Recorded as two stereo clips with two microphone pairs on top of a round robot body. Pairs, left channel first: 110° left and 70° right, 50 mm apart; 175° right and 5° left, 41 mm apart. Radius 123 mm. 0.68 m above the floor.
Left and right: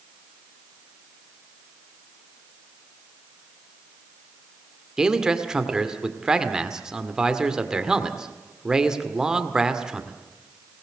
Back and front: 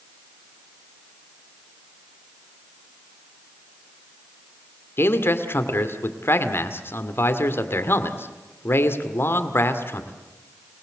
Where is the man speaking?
145° right, 1.9 m.